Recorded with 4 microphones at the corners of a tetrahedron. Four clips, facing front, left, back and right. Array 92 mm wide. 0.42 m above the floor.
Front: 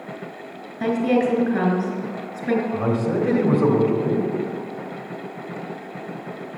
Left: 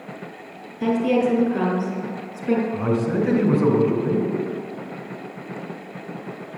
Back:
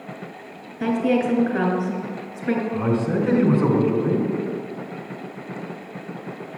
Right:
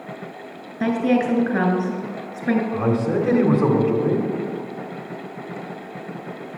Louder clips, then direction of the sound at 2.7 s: Right 1 dB, even; 50° right.